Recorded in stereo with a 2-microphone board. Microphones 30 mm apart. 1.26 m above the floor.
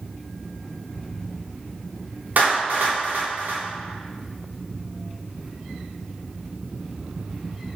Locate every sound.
2.4 s a clap: 75° right (ahead or behind), 3 m